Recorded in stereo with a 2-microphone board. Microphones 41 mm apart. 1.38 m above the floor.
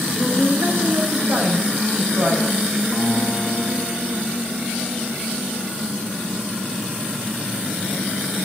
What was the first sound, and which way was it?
A woman speaking, 75° right (ahead or behind).